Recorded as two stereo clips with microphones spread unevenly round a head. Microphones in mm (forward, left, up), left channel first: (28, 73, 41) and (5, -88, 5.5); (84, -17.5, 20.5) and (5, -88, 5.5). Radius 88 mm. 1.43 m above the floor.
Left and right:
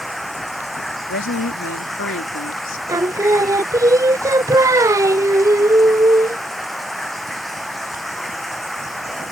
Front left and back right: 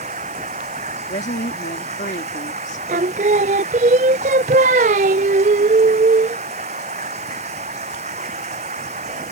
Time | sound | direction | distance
0.0 | running water | 170° left | ?
1.1 | a woman speaking | 75° left | ?
2.9 | singing | 175° right | ?